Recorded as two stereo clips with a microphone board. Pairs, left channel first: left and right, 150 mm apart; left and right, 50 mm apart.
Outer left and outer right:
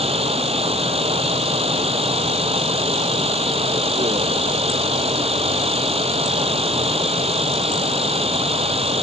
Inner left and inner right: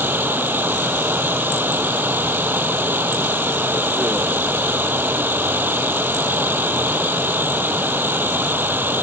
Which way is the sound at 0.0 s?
40° right (ahead or behind).